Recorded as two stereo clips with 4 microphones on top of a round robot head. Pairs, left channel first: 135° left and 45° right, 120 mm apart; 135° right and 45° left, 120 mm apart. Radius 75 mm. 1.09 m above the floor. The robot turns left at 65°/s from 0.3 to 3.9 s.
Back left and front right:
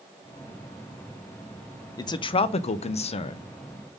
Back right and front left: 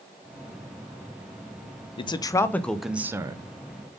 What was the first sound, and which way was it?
A man speaking, 170° right.